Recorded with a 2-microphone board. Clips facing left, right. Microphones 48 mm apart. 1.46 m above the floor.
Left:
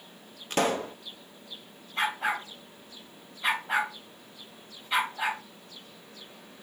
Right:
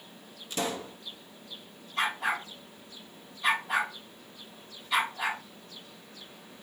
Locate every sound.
0.5 s a pop: 55° left (ahead or behind), 0.8 m
2.0 s a dog barking: 25° left (ahead or behind), 4 m